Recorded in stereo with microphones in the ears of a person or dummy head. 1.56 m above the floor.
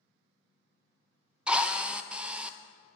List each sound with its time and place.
1.5 s a drill: 10° right (ahead or behind), 0.5 m